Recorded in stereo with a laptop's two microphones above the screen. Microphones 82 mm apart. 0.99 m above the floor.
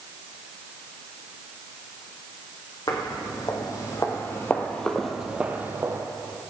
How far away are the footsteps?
About 3 m.